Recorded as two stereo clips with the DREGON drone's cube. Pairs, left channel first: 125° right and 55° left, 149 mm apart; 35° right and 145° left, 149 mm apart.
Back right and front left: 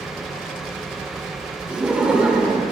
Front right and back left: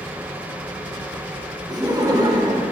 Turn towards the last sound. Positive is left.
turn(degrees=130)